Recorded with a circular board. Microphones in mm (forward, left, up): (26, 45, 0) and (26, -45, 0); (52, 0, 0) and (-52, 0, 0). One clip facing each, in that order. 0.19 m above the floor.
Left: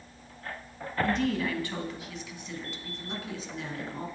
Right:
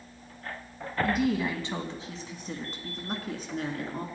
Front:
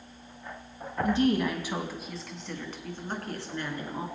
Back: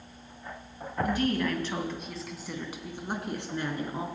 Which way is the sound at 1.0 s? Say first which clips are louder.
Right 2 dB, front 3 dB; 15° right.